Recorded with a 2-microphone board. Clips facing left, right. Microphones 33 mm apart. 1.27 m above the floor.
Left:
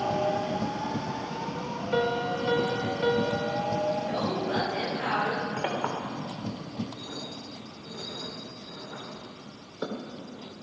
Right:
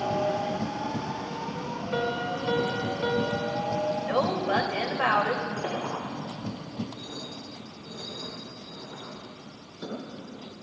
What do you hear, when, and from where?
1.9 s a piano: 15° left (ahead or behind), 1.6 m
4.0 s a woman speaking: 75° right (ahead or behind), 2.5 m
5.6 s a clink: 45° left (ahead or behind), 3.5 m